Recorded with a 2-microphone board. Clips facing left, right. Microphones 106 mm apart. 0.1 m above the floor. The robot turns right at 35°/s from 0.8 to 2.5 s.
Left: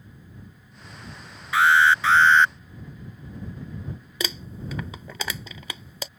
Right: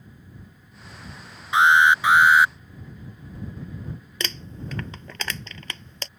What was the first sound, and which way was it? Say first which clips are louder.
An alarm: right 1 dB; 20° right (ahead or behind).